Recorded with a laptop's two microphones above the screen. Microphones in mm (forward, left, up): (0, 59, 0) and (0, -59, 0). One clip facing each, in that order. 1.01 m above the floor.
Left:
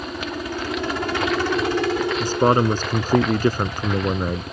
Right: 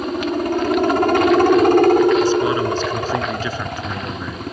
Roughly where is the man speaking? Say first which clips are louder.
Right 1 dB; left.